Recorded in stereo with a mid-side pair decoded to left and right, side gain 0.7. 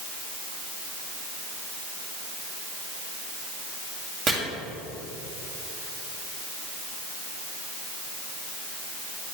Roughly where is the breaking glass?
No breaking glass in this recording.